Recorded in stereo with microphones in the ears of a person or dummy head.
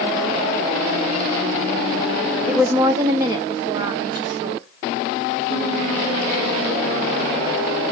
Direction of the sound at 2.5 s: Centre (ahead or behind).